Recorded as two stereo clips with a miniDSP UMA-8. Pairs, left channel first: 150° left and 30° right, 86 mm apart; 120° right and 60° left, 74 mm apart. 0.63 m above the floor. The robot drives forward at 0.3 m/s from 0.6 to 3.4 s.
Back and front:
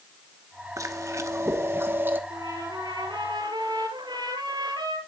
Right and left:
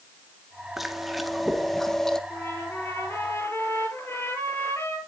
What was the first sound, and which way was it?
Chewing, 25° right.